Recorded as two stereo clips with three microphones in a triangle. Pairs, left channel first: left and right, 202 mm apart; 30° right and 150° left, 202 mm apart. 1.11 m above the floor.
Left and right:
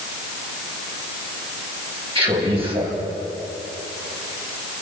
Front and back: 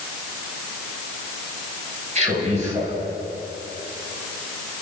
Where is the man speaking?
155° right, 7 m.